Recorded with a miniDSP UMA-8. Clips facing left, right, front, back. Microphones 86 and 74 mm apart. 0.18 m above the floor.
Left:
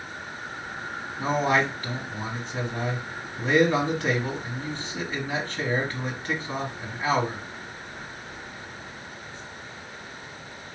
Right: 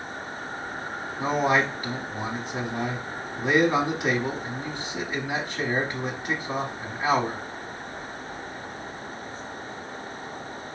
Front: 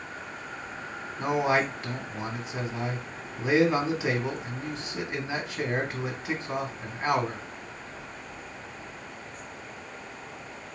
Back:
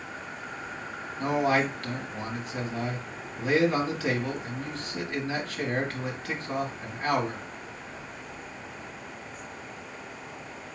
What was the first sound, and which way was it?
A man speaking, 35° right.